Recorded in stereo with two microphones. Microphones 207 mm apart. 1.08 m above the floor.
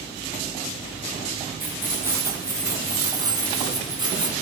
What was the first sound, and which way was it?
Keys jangling, 10° right (ahead or behind).